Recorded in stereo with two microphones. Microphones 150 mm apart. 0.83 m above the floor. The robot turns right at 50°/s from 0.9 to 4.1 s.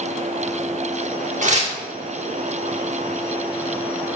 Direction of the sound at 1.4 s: 55° right (ahead or behind).